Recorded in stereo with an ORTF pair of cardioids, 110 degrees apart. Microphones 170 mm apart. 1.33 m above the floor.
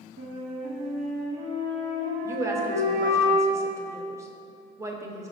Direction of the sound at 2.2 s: 20° right.